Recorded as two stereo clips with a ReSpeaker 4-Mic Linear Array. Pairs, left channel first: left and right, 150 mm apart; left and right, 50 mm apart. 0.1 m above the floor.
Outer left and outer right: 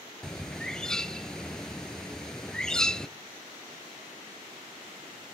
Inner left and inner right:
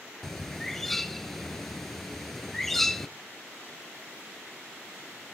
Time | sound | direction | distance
0.2 | a bird | 5° left (ahead or behind) | 0.6 m